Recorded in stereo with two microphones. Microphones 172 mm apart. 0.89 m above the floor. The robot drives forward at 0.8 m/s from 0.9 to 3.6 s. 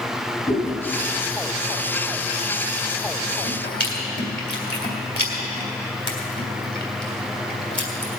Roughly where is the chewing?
Left.